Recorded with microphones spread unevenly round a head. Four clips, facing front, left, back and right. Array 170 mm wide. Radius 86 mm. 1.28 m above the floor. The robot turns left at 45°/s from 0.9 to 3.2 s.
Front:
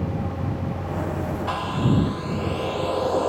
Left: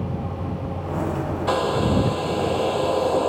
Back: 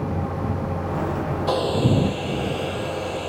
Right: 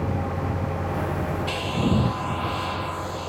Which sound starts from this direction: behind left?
A hair dryer, at 1.5 s.